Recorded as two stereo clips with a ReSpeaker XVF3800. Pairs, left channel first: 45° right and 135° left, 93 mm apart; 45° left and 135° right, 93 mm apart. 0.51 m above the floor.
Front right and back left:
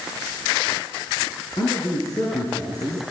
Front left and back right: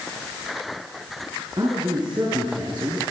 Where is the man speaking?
95° right, 6 m; by 3.0 s 100° right, 5.5 m.